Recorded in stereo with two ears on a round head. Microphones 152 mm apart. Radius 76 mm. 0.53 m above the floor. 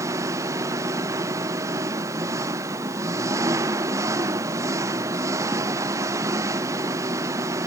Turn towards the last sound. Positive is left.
turn(degrees=-20)  # may be behind; listen again after turning